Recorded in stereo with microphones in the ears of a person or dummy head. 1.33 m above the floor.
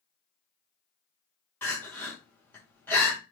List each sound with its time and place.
1.6 s crying: 10° left (ahead or behind), 1.7 m